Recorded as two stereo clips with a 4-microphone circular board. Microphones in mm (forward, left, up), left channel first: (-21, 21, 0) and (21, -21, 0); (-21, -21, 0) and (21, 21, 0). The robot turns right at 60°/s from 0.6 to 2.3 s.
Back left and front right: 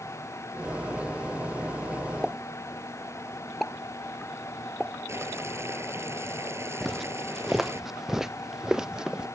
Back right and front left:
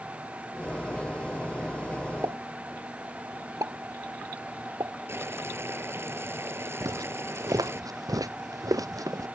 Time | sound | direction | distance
2.2 | a pop | 40° left | ?
5.1 | boiling | straight ahead | ?
6.8 | footsteps | 45° left | ?